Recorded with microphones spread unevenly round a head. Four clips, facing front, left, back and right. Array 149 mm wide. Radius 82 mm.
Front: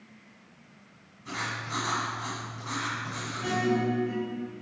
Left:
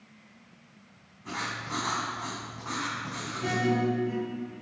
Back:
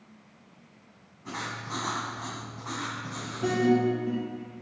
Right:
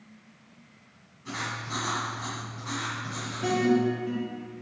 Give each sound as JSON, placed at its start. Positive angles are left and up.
{"t": 1.2, "sound": "writing", "azimuth_deg": 145, "distance_m": 2.5}
{"t": 3.4, "sound": "a guitar", "azimuth_deg": -165, "distance_m": 3.0}